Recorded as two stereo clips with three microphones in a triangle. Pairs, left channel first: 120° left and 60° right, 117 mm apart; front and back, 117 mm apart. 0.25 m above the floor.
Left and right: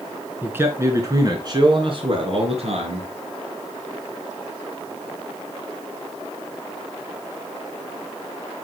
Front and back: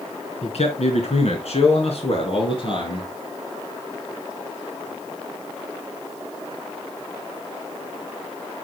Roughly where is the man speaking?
Ahead.